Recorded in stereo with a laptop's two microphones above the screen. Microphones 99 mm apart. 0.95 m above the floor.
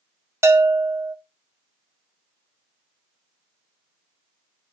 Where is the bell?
25° right (ahead or behind), 1.0 m.